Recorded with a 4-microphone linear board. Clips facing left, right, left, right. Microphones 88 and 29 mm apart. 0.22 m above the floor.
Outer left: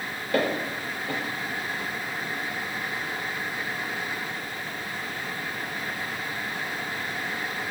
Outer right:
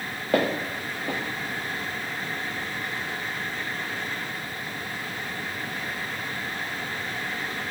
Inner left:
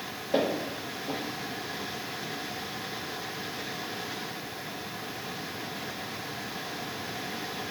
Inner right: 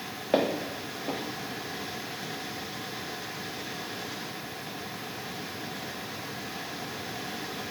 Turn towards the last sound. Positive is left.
turn(degrees=-80)